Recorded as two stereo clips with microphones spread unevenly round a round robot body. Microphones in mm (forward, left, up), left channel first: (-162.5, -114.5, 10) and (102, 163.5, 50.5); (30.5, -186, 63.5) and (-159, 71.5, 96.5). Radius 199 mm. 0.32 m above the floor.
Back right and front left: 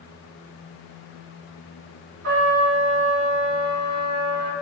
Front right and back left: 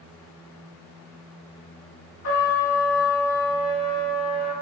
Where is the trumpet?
10° right, 1.4 m.